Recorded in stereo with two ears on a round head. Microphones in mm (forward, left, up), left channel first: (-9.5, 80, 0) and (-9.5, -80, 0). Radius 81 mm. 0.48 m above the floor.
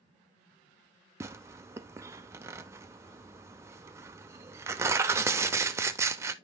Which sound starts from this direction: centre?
Tearing paper, at 1.2 s.